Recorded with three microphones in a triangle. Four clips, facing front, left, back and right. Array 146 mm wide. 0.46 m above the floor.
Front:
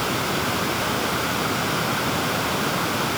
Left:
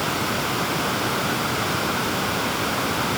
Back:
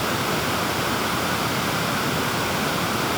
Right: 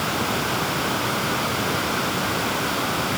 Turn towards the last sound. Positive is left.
No sound to turn to.